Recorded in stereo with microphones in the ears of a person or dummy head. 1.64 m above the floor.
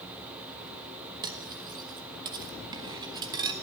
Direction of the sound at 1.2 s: 20° right (ahead or behind).